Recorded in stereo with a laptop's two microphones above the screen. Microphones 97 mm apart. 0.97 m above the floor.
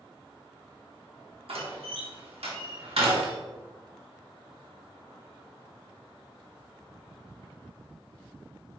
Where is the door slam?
80° right, 1.3 m.